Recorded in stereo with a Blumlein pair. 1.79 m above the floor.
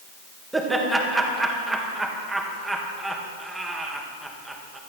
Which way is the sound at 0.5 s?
5° right.